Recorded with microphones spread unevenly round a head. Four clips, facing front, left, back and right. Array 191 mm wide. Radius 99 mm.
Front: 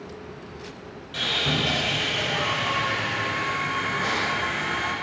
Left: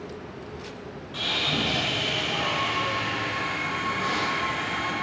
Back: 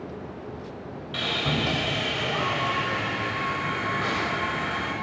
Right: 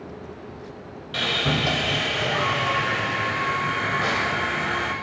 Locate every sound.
1.1 s sawing: 100° right, 6.5 m